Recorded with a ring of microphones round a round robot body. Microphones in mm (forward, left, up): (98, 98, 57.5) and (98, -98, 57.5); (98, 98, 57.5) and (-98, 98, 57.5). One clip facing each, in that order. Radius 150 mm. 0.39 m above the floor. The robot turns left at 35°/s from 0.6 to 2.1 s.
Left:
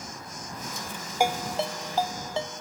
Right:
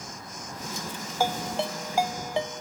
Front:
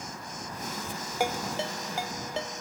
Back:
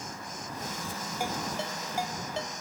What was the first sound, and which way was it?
A ringtone, 15° left.